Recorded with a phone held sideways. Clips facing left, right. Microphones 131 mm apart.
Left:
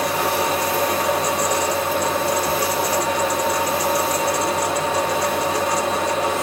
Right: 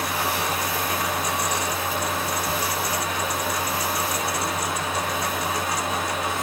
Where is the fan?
80° left, 1.3 m.